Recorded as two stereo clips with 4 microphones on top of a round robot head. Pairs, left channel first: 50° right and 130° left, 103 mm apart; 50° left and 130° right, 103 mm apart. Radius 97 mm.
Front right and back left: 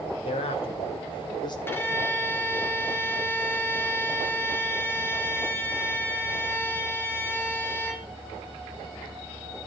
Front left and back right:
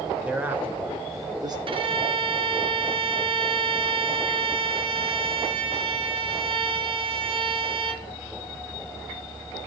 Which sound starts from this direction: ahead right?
A man speaking, at 0.2 s.